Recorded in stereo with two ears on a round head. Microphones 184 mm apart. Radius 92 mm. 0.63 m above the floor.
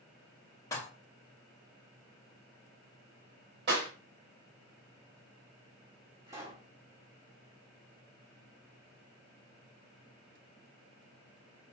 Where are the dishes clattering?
15° left (ahead or behind), 0.7 m.